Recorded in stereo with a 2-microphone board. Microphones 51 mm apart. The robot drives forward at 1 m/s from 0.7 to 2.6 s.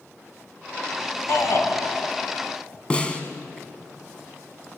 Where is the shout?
60° left (ahead or behind), 3 m; by 1.7 s 55° left (ahead or behind), 3 m.